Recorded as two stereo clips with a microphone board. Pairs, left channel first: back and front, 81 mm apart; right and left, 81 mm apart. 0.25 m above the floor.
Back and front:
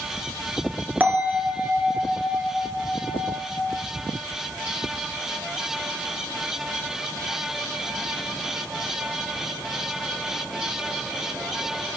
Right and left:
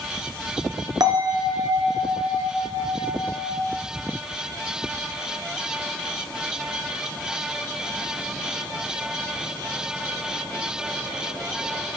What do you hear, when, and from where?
1.0 s a bell: 65° left, 1.5 m